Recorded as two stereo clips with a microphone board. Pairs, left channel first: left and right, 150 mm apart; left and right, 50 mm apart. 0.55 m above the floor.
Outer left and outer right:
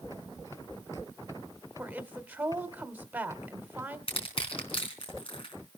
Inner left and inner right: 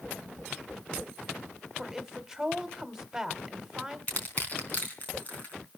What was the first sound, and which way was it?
A woman speaking, 10° right (ahead or behind).